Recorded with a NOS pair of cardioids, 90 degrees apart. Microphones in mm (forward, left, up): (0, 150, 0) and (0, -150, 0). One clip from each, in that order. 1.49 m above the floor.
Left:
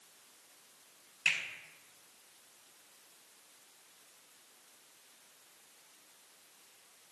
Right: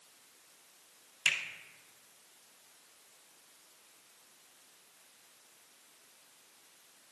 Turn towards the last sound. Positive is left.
turn(degrees=-35)